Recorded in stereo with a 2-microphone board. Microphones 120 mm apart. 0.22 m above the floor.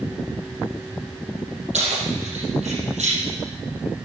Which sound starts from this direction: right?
Keys jangling, at 1.7 s.